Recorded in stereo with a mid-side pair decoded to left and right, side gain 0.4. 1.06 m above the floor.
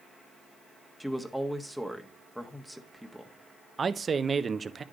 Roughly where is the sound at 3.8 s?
Ahead right.